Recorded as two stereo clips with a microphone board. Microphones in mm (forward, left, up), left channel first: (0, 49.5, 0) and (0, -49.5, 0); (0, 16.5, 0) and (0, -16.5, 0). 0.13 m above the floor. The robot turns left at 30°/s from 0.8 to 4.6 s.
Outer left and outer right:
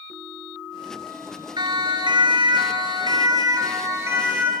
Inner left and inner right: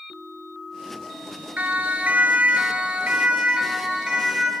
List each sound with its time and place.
1.6 s a siren: 50° right (ahead or behind), 3 m; by 4.5 s 15° right (ahead or behind), 5 m